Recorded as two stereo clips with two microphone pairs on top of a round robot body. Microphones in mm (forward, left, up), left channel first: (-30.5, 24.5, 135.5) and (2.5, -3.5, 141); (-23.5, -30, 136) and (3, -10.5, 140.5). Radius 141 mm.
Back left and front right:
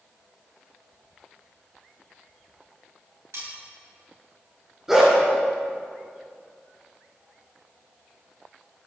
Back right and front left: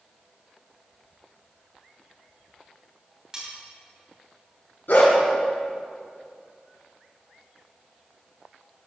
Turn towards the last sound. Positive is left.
turn(degrees=-120)